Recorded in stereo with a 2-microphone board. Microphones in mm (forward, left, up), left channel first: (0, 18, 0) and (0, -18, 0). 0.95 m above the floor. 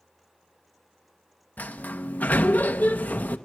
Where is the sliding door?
45° left (ahead or behind), 0.9 m.